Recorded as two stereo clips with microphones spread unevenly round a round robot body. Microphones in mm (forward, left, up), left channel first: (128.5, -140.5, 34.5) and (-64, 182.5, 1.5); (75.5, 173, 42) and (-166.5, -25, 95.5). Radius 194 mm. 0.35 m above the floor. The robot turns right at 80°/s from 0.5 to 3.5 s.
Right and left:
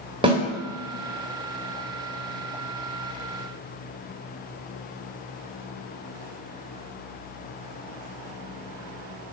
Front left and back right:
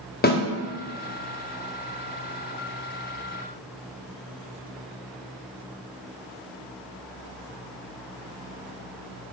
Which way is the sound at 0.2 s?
55° left.